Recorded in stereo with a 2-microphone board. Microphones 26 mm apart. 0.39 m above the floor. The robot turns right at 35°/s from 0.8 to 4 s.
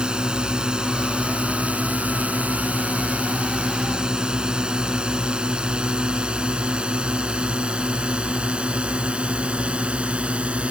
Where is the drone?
40° right (ahead or behind); by 10.7 s 50° right (ahead or behind).